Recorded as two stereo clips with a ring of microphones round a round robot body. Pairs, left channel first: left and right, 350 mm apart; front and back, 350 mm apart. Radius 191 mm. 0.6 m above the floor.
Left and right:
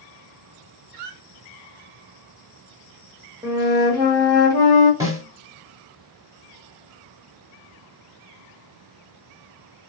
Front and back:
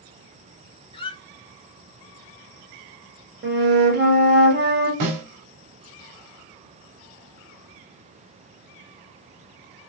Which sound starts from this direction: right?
A squeak, at 0.9 s.